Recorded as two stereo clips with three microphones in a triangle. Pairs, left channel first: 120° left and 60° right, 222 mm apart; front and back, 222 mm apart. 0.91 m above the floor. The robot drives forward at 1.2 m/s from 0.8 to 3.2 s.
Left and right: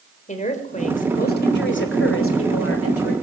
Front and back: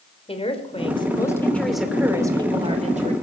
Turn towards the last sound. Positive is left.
turn(degrees=125)